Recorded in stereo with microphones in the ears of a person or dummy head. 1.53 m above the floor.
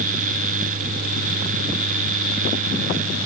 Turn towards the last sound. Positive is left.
No sound to turn to.